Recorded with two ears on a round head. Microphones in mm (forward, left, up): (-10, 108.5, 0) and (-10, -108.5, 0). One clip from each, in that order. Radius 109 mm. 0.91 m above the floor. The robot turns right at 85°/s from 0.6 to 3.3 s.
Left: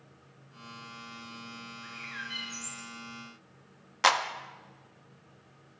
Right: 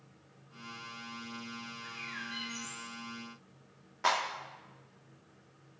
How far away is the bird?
About 2 m.